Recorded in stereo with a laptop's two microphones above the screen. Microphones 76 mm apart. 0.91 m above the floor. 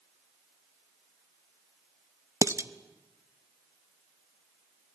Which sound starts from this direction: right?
Dishes clattering, at 2.4 s.